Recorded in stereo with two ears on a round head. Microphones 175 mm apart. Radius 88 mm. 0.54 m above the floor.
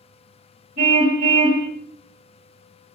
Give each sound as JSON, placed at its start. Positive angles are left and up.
{"t": 0.8, "sound": "a car horn", "side_deg": -40, "distance_m": 6.5}